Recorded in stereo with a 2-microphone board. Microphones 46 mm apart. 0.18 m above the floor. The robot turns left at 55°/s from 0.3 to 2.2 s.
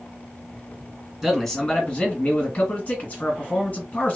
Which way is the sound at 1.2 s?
175° right.